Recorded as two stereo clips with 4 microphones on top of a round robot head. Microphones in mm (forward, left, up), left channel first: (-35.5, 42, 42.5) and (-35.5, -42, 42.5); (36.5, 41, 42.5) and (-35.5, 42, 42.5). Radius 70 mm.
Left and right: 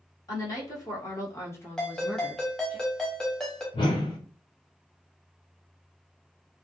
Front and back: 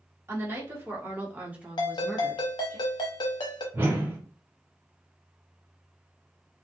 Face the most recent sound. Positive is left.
turn(degrees=120)